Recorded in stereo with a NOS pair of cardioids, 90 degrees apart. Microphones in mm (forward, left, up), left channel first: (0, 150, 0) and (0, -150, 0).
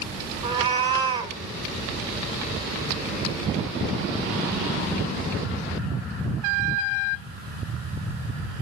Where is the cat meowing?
15° right, 2.5 m.